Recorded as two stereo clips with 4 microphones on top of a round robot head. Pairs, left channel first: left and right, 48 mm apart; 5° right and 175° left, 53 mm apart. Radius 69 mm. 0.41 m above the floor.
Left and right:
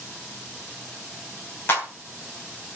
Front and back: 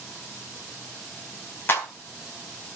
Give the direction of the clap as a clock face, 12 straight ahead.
10 o'clock.